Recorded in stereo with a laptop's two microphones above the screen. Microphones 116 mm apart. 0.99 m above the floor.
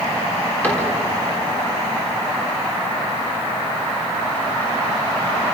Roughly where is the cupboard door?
Centre.